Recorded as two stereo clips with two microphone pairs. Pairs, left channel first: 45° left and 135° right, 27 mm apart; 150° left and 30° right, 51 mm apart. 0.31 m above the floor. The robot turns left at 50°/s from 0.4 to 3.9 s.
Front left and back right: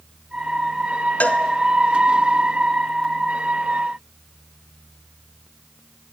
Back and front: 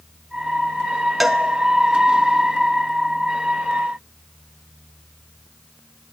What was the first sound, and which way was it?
A cowbell, 55° left.